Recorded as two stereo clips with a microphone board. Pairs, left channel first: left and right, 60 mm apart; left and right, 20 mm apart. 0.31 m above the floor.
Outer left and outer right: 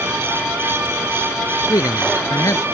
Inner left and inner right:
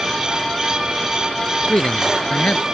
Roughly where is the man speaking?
Left.